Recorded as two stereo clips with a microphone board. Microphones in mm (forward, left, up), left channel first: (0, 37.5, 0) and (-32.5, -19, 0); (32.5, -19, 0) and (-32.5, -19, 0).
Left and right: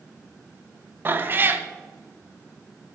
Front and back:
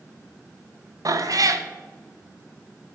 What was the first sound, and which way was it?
A cat meowing, 175° right.